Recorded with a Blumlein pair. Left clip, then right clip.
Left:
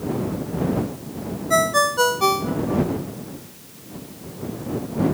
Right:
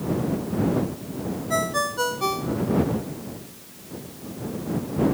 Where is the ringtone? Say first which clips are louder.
Left 7 dB; 20° left.